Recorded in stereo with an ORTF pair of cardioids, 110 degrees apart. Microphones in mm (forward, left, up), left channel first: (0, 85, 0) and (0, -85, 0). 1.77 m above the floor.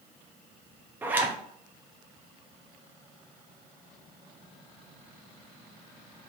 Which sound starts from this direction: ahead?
A zipper, at 1.0 s.